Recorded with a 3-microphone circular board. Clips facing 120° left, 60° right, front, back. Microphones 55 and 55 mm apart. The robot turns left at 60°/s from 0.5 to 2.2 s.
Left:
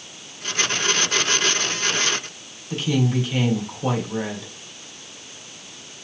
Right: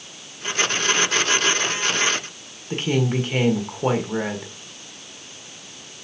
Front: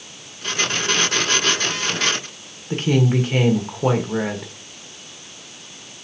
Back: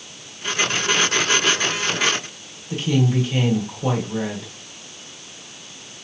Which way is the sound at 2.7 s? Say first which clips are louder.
Even, front 2 dB; 20° right.